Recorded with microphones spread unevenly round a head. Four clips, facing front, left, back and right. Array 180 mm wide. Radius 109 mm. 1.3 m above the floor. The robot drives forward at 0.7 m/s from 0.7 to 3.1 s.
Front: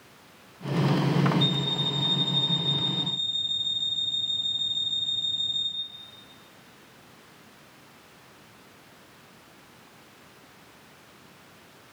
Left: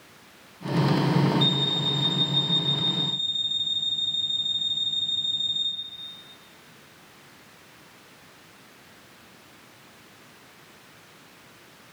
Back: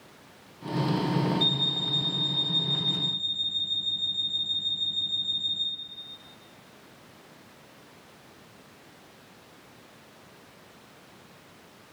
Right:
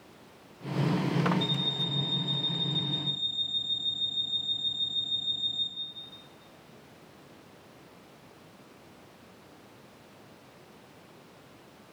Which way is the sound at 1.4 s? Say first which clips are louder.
Left 6 dB, front 3 dB; 145° left.